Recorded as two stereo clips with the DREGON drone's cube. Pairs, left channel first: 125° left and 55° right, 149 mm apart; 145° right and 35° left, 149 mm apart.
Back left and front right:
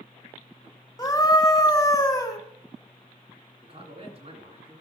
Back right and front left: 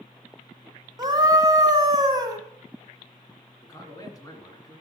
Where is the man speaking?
85° right, 2.5 m.